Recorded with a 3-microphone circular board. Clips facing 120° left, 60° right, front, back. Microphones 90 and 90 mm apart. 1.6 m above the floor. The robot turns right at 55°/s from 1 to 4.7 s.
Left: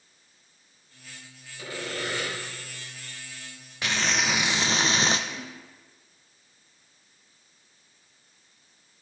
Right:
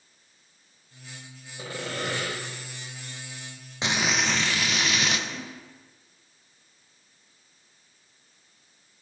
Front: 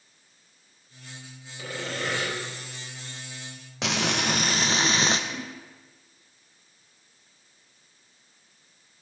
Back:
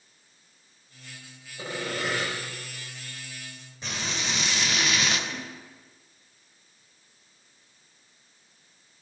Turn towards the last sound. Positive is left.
turn(degrees=45)